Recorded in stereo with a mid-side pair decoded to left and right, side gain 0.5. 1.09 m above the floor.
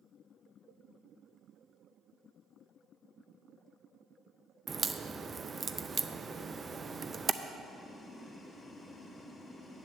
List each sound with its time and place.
4.7 s a crack: 30° right, 0.6 m
7.6 s boiling: 25° left, 2.5 m